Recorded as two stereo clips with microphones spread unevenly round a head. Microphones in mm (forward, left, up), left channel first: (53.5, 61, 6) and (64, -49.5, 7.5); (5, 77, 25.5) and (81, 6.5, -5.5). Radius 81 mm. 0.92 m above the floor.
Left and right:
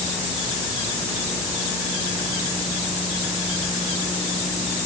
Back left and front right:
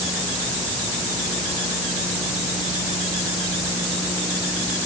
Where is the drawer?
No drawer in this recording.